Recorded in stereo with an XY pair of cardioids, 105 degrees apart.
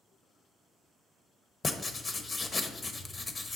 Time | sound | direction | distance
1.6 | writing | 30° left | 0.9 m